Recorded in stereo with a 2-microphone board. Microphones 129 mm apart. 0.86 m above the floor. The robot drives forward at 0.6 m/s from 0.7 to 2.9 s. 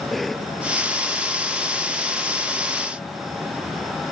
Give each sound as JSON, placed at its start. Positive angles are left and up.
{"t": 0.1, "sound": "a cough", "side_deg": 0}